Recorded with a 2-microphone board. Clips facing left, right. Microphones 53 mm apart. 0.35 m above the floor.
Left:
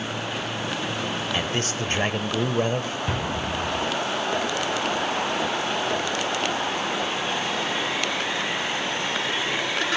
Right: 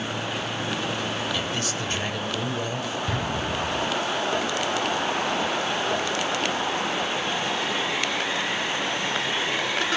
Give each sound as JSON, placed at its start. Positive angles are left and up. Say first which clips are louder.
{"t": 1.3, "sound": "a man speaking", "louder": "left 2 dB", "side_deg": 40, "distance_m": 1.1}
{"t": 3.1, "sound": "an explosion", "louder": "even", "side_deg": 20, "distance_m": 10.0}